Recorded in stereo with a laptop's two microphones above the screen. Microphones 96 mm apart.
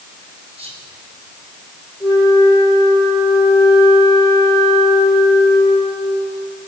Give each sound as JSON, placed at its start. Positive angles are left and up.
{"t": 0.6, "sound": "whispering", "side_deg": -75, "distance_m": 4.5}
{"t": 2.0, "sound": "a flute", "side_deg": -5, "distance_m": 7.5}